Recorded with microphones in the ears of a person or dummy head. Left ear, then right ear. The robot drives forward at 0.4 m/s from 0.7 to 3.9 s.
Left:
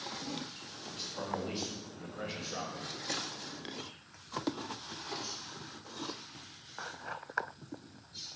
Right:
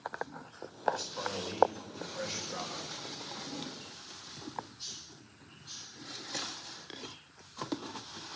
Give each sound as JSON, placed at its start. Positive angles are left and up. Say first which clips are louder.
{"t": 0.9, "sound": "a man speaking", "louder": "right 2 dB", "side_deg": -70, "distance_m": 4.0}